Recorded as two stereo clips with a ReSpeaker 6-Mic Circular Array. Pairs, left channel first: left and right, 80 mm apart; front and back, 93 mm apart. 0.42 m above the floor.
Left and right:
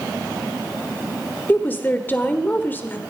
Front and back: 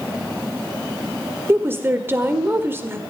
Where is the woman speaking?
135° left, 1.3 m.